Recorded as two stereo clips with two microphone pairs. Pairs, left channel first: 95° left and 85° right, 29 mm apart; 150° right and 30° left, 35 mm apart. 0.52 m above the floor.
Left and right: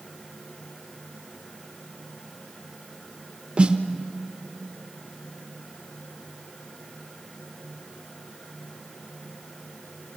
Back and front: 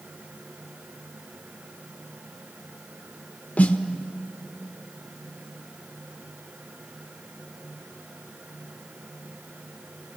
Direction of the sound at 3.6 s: 120° right.